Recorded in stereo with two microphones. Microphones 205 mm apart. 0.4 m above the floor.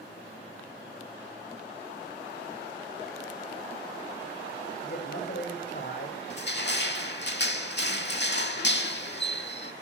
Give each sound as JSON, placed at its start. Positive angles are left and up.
{"t": 4.8, "sound": "a man speaking", "side_deg": 55, "distance_m": 1.9}
{"t": 6.3, "sound": "crushing", "side_deg": 60, "distance_m": 0.7}